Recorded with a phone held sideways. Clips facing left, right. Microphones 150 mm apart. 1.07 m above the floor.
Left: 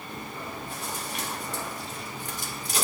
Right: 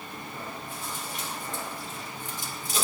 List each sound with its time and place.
0.1 s chewing: 75° left (ahead or behind), 1.9 m